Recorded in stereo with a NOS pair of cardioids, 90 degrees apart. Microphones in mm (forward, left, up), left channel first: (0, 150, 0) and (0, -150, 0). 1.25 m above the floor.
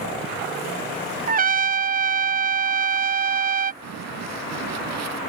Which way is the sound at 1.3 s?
30° right.